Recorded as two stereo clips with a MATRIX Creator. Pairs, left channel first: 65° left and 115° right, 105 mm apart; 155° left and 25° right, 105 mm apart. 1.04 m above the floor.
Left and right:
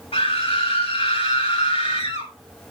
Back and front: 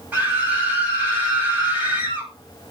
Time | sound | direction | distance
0.1 | a scream | 50° left | 7 m